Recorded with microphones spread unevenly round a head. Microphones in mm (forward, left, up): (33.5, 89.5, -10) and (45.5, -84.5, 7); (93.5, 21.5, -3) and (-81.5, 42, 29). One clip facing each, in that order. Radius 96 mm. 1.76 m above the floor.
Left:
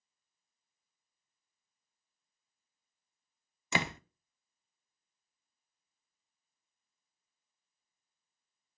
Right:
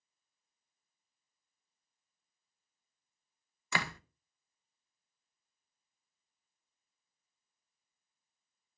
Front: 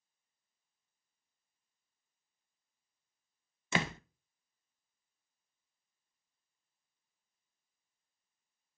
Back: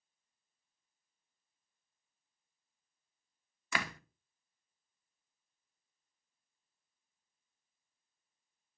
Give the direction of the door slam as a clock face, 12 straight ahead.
10 o'clock.